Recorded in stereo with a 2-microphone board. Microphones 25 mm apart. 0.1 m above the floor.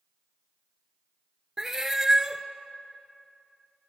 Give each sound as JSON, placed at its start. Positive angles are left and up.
{"t": 1.6, "sound": "a cat meowing", "side_deg": -15, "distance_m": 0.5}